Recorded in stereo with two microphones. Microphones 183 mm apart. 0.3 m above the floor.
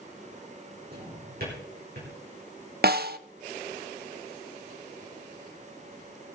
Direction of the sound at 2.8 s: 60° right (ahead or behind).